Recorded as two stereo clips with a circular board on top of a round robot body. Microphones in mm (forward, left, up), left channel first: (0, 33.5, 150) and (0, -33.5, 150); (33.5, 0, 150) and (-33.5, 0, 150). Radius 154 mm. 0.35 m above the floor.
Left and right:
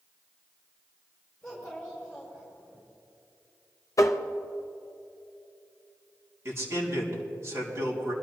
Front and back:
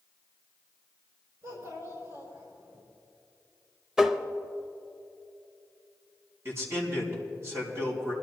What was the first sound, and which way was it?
A child speaking, 170° left.